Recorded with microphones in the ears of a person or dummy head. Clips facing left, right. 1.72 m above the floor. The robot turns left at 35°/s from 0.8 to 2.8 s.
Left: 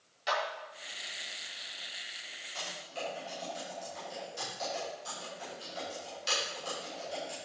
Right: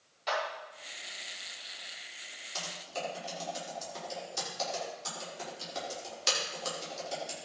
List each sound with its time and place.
0.3 s a clap: 10° left (ahead or behind), 5 m
2.5 s typing on a keyboard: 60° right (ahead or behind), 6 m; by 7.3 s 70° right (ahead or behind), 6 m